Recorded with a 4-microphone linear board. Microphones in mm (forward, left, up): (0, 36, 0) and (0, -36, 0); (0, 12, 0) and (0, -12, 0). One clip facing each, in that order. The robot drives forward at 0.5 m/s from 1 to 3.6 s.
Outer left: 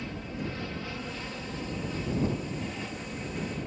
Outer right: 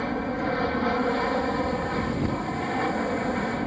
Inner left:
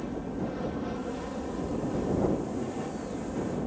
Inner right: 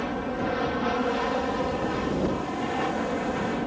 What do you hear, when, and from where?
0.0 s an aircraft: 55° right (ahead or behind)